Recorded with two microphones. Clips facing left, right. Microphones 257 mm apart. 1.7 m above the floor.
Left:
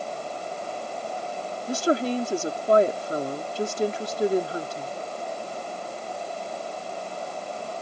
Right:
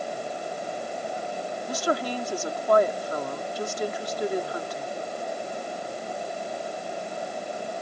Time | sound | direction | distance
1.7 | a woman speaking | 30° left (ahead or behind) | ?